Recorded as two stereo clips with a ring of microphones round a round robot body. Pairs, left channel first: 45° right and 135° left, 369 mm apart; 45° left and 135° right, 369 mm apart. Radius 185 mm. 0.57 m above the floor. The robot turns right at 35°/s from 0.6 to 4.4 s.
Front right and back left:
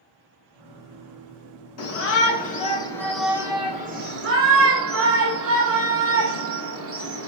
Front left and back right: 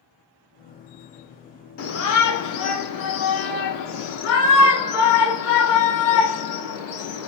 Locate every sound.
1.8 s a shout: 5° right, 1.1 m; by 7.3 s 90° left, 1.1 m